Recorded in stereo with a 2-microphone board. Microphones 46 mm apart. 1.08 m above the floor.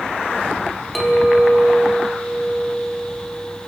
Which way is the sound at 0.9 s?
Centre (ahead or behind).